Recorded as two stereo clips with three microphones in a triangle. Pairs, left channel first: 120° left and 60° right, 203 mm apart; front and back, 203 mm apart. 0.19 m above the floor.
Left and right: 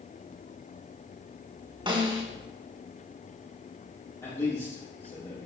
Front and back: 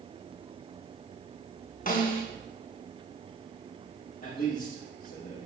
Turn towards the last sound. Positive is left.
turn(degrees=50)